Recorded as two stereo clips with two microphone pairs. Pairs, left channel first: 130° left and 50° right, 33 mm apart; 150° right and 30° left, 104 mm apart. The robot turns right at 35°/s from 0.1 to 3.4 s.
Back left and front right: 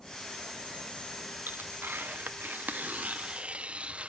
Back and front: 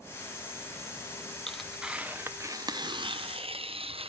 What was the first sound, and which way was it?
Tearing paper, 65° right.